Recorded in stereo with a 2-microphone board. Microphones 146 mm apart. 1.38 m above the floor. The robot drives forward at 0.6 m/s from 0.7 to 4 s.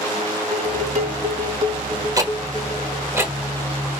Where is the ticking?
20° right (ahead or behind), 1.2 m; by 3.3 s 15° right (ahead or behind), 1.7 m.